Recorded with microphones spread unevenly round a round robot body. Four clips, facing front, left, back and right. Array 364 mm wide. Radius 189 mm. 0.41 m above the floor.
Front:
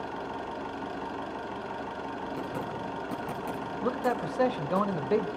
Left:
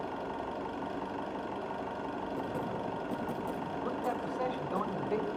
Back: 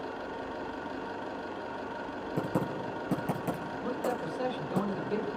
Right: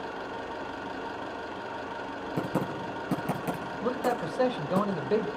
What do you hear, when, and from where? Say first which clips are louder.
0.0 s an engine running: right 1 dB, front 2 dB; 20° left, 4.5 m
2.4 s typing on a keyboard: right 8 dB, back 2 dB; 125° right, 5 m
3.8 s a man speaking: right 7 dB, front 4 dB; 30° right, 1.8 m